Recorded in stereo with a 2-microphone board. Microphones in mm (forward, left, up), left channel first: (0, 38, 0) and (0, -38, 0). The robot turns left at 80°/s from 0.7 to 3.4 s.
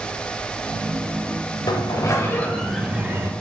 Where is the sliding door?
85° left, 1.1 m; by 3.3 s 45° right, 1.1 m.